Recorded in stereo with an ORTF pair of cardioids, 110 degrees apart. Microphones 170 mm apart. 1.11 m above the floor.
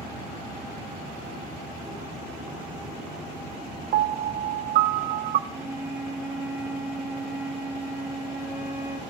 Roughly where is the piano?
Ahead right.